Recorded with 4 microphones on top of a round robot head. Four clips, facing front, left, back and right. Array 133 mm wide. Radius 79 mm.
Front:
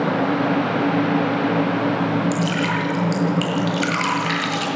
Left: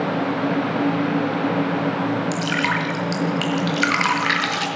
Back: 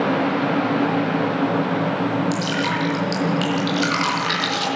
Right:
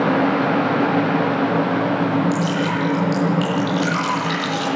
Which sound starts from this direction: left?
Dripping, at 2.3 s.